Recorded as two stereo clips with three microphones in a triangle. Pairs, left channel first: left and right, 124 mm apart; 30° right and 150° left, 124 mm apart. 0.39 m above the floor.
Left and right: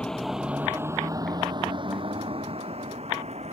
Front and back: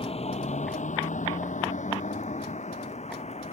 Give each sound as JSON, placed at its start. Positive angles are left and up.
{"t": 0.0, "sound": "a vehicle", "azimuth_deg": 10}